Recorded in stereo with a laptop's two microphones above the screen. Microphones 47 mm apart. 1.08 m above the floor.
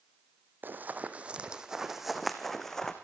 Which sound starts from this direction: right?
Running footsteps, at 0.6 s.